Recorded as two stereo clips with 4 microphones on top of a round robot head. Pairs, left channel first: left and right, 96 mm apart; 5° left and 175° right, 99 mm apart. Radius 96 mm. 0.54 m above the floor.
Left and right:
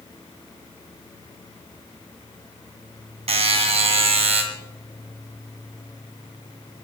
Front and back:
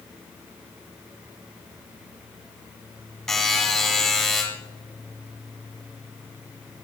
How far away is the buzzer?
About 1.8 m.